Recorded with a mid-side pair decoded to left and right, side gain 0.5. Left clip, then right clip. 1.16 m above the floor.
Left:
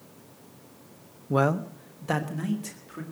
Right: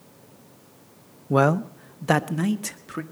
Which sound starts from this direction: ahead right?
A man speaking, at 1.3 s.